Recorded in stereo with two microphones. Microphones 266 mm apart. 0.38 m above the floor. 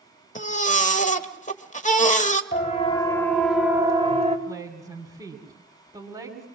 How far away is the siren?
About 2 m.